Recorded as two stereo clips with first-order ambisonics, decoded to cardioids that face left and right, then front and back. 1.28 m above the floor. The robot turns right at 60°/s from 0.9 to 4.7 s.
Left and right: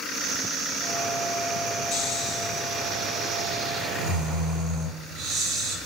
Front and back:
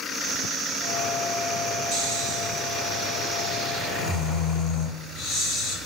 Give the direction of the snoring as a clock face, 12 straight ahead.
7 o'clock.